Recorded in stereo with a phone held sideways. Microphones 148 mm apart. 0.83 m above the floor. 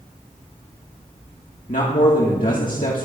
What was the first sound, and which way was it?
A man speaking, 65° left (ahead or behind).